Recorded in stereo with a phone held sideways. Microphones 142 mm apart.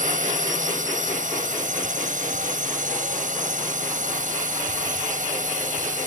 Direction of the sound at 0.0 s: 65° right (ahead or behind).